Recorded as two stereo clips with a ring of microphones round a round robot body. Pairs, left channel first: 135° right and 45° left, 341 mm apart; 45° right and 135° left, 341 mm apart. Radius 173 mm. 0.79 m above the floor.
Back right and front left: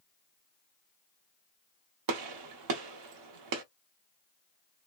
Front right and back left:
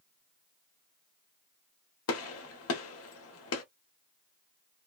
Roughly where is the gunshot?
Ahead.